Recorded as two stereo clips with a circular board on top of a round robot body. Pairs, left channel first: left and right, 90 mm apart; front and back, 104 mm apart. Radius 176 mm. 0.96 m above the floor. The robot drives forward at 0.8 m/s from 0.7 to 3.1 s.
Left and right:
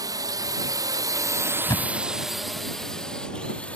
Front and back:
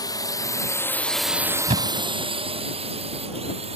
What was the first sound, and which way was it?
A drone, 50° right.